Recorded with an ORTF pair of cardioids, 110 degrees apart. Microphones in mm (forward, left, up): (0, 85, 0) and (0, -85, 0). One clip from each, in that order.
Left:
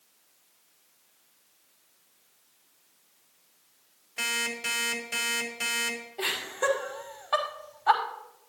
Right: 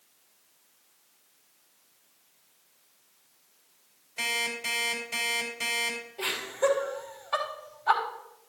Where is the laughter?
30° left, 5 m.